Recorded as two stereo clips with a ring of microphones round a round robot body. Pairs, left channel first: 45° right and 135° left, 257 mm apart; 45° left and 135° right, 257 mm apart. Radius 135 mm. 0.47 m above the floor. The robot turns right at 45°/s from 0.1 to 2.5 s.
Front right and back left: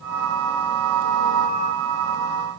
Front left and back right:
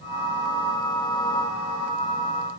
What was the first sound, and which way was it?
Only background noise.